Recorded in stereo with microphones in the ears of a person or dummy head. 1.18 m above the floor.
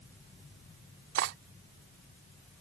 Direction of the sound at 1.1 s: 65° right (ahead or behind).